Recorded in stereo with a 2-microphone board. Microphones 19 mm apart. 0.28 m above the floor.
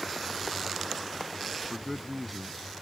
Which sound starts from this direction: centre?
A man speaking, at 1.7 s.